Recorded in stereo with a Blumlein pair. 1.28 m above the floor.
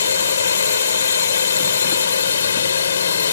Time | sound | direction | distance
0.0 | a drone | 70° left | ?